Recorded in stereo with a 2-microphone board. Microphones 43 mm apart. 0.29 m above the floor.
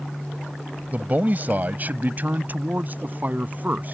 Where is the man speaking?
40° right (ahead or behind).